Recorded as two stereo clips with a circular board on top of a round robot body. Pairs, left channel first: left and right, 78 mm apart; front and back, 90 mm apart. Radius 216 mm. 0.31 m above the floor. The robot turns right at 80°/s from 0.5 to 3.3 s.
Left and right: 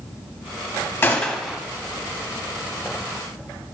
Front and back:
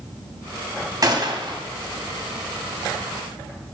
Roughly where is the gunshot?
Behind left.